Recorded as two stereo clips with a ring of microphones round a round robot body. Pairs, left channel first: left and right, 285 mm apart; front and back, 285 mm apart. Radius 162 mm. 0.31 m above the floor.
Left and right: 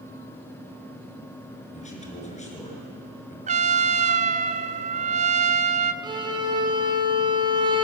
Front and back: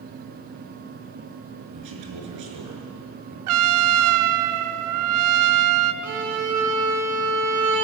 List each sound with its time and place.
1.7 s a man speaking: 155° left, 5.5 m
3.5 s a trumpet: 155° right, 1.0 m
6.0 s a violin: 165° right, 3.5 m